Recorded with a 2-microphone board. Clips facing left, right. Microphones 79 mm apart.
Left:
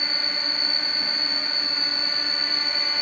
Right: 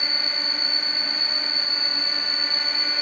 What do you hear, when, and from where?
0.0 s an insect: 65° left (ahead or behind), 1.8 m